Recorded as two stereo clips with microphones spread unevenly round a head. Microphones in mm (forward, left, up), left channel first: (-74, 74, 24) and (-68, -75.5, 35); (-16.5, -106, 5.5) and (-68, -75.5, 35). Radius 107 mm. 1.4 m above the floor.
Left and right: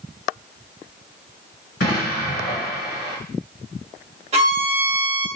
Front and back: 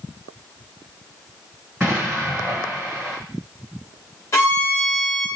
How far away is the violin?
About 1.4 m.